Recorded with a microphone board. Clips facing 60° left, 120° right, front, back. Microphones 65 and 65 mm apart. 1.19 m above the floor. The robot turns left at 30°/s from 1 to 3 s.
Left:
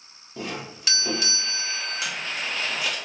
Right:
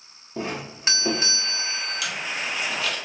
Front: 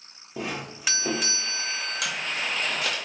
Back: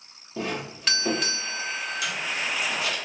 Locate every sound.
0.4 s a doorbell: 75° right, 0.5 m; by 2.1 s 110° right, 0.5 m
2.0 s a camera shutter: 5° left, 0.9 m; by 3.0 s 20° right, 0.9 m